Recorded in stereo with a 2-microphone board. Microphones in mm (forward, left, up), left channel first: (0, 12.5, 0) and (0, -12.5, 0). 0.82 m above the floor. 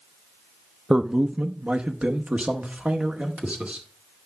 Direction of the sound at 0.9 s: 25° right (ahead or behind).